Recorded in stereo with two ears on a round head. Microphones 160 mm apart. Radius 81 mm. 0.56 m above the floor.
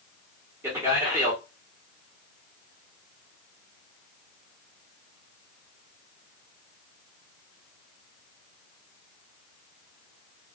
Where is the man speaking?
15° right (ahead or behind), 1.1 m.